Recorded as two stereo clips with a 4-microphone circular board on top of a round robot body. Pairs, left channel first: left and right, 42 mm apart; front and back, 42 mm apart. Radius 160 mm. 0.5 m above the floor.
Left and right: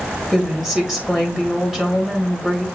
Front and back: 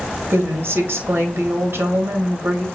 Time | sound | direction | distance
0.3 | a woman speaking | 165° right | 1.4 m